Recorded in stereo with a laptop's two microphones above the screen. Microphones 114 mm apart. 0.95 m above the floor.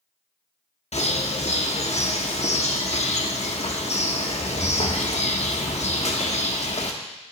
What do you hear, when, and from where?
0.9 s a bird: 75° left (ahead or behind), 0.8 m